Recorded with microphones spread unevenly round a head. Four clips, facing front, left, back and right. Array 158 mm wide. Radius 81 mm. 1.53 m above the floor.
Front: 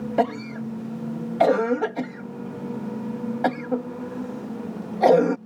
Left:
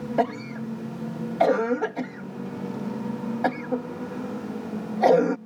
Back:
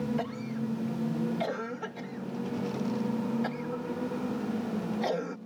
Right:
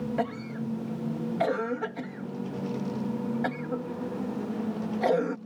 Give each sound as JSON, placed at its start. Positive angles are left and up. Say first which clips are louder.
{"t": 0.2, "sound": "a cough", "louder": "left 5 dB, front 10 dB", "azimuth_deg": 25}